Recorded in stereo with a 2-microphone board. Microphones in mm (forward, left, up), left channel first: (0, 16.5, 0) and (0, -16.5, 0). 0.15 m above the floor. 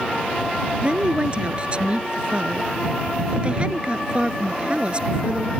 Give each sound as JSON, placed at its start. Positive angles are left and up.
{"t": 0.8, "sound": "a woman speaking", "side_deg": -35}